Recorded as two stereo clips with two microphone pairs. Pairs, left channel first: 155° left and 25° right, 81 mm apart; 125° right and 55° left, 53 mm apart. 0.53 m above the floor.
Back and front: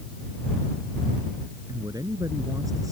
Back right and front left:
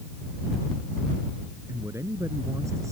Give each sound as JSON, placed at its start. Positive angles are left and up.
{"t": 1.7, "sound": "a man speaking", "azimuth_deg": 20}